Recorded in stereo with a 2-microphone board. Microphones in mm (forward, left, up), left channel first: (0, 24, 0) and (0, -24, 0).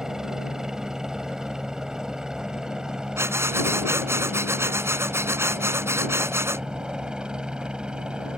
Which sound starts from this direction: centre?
A helicopter, at 0.0 s.